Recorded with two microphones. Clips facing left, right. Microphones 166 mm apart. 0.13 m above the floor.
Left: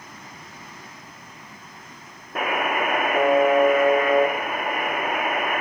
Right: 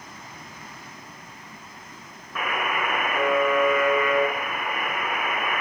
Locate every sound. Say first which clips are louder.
2.4 s a buzzer: left 4 dB; 45° left (ahead or behind), 0.8 m